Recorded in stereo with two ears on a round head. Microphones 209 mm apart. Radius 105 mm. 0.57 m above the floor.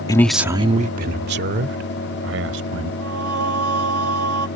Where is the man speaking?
15° left (ahead or behind); by 2.9 s 65° right (ahead or behind).